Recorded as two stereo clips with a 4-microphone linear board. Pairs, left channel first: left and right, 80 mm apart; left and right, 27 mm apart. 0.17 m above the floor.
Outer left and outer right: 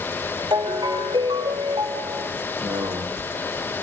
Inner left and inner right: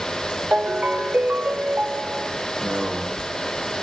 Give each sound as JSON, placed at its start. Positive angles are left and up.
{"t": 0.5, "sound": "a ringtone", "side_deg": -70, "distance_m": 1.5}
{"t": 2.6, "sound": "a man speaking", "side_deg": -75, "distance_m": 7.5}